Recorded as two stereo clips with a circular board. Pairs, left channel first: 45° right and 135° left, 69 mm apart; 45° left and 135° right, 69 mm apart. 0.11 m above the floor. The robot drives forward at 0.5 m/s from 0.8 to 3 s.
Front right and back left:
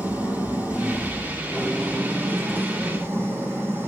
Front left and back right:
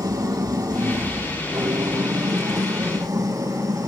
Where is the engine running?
160° right, 2.5 m; by 3.9 s 165° right, 3.5 m.